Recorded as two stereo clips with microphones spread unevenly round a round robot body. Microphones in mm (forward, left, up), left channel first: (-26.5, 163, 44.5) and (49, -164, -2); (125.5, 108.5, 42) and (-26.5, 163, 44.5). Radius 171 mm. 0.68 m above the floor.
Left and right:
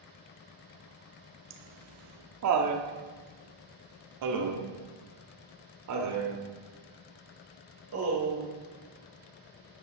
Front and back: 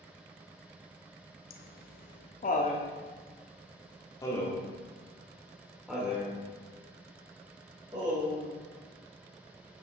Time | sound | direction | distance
1.5 | laughter | 35° right | 1.6 m